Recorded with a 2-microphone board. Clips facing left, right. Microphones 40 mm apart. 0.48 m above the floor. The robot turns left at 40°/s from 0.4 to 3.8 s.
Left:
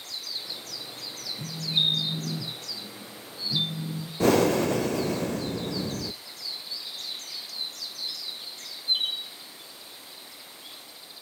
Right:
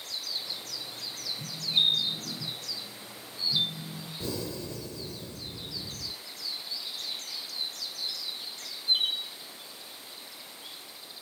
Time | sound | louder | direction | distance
1.4 | a phone buzzing | left 1 dB | 150° left | 6 m
4.2 | breathing | left 16 dB | 70° left (ahead or behind) | 0.5 m